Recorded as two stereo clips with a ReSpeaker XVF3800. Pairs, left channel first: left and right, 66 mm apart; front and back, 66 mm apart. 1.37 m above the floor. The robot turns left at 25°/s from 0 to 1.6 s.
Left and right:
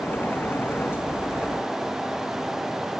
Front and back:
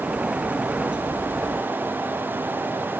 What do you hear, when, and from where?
Only background noise.